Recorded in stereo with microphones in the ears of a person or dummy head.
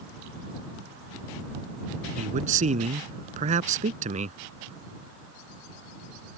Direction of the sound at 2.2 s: 35° right (ahead or behind).